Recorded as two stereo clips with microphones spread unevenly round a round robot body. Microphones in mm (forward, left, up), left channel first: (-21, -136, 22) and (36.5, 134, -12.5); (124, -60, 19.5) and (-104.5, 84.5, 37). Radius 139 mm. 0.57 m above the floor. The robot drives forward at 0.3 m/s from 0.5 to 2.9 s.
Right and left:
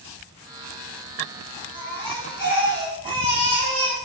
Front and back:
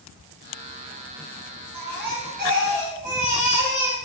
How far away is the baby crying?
About 1.9 m.